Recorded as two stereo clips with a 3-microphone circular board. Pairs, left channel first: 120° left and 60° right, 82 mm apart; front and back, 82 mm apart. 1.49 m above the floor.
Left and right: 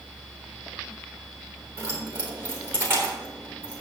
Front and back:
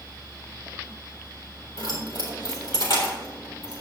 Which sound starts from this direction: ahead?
Keys jangling, at 1.8 s.